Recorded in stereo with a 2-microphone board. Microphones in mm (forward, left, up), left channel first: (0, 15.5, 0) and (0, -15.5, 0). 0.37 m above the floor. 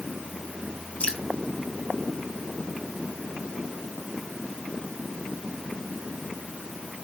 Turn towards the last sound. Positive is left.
turn(degrees=55)  # may be behind; listen again after turning